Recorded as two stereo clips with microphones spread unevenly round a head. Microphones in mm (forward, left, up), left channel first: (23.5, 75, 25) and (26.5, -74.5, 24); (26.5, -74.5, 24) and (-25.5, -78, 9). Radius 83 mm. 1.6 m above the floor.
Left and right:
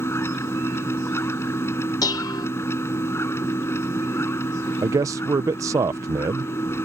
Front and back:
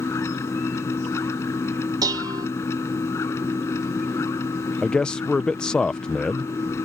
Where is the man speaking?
30° right.